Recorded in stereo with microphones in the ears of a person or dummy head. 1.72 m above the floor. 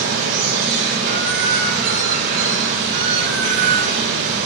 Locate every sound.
0.0 s running water: 55° right (ahead or behind), 5.5 m